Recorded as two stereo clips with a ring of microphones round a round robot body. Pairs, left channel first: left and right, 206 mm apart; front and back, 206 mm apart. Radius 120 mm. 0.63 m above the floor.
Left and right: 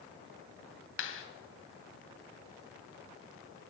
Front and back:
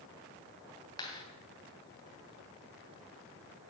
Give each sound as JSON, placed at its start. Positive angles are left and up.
{"t": 1.0, "sound": "a clap", "azimuth_deg": 75, "distance_m": 3.0}